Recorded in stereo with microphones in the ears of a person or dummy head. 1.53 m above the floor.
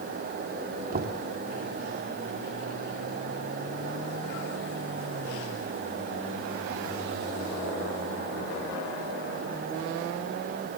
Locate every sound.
0.9 s knocking: 55° right (ahead or behind), 3 m